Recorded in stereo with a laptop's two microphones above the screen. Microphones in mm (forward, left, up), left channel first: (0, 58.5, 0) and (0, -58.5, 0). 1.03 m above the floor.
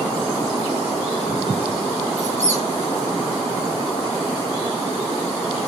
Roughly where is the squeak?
Right.